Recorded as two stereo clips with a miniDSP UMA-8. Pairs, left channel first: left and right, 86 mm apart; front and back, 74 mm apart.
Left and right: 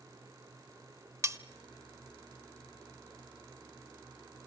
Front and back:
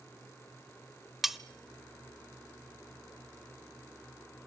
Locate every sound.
1.2 s cutlery clinking: 95° right, 0.7 m